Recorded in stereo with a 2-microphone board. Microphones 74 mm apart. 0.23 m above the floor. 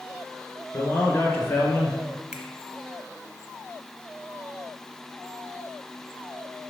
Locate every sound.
0.7 s a man speaking: 30° left (ahead or behind), 2.5 m; by 2.0 s 25° left (ahead or behind), 1.9 m
2.3 s a finger snap: 15° right (ahead or behind), 0.8 m